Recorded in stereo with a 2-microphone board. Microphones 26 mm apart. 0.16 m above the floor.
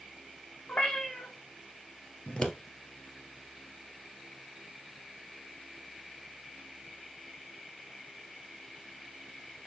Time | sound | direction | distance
0.7 | a cat meowing | 60° left (ahead or behind) | 1.9 m
2.3 | scissors | 50° left (ahead or behind) | 1.5 m